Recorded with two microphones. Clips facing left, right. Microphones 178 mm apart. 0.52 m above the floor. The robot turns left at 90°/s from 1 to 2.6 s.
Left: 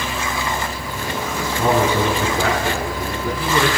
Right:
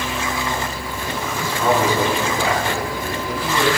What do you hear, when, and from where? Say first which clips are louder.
1.4 s a man speaking: left 1 dB; 165° left, 7 m; by 3.7 s 55° left, 7 m